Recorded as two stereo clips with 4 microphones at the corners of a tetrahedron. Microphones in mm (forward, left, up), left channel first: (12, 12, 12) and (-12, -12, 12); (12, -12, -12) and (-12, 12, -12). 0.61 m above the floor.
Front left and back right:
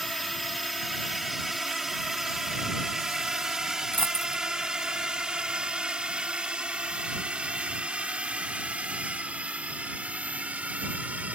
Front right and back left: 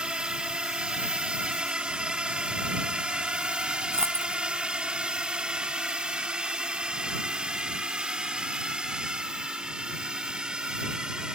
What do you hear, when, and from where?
0.0 s a drone: 130° left; by 11.4 s 165° right
3.9 s a dropped coin: 75° left